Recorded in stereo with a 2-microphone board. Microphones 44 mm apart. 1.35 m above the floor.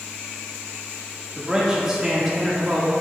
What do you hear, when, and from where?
1.4 s a man speaking: 10° right (ahead or behind), 1.7 m